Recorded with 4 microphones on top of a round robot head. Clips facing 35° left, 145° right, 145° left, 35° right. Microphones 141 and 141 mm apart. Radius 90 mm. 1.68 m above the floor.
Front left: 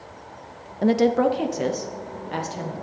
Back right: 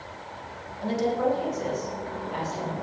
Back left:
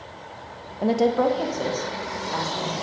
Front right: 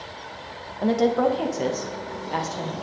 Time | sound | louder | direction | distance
0.8 | a woman speaking | front left 7 dB, even | 65° left | 0.7 m